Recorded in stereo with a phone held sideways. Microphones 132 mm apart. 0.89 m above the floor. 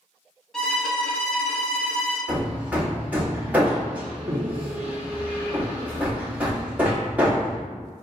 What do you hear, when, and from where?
0.5 s a violin: 5° left (ahead or behind), 1.3 m
2.3 s hammering: 10° right (ahead or behind), 1.2 m